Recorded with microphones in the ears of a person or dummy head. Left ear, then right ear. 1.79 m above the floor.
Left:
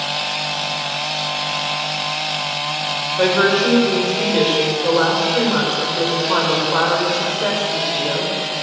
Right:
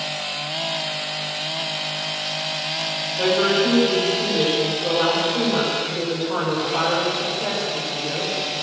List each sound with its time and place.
3.2 s a woman speaking: 60° left (ahead or behind), 8.5 m